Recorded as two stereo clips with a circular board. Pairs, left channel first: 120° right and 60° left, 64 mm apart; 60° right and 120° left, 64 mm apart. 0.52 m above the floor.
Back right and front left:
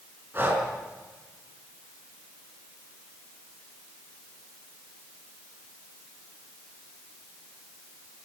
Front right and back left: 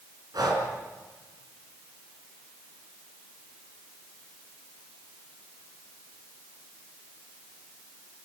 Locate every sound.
0.3 s breathing: 115° left, 4.5 m